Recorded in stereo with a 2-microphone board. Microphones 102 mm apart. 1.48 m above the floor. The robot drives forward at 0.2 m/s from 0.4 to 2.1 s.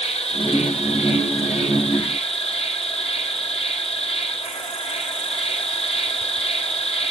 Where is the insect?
90° left, 1.1 m; by 7.1 s 75° left (ahead or behind), 1.1 m.